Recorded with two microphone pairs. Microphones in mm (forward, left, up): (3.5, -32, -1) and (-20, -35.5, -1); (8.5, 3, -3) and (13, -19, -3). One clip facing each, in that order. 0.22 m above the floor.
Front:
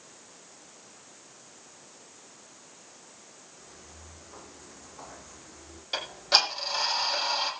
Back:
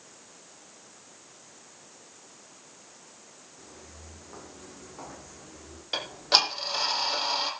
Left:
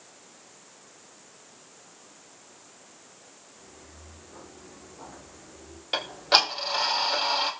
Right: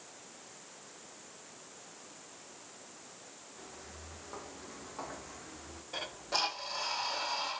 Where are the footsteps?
110° right, 8.5 m; by 5.8 s 100° right, 7.5 m.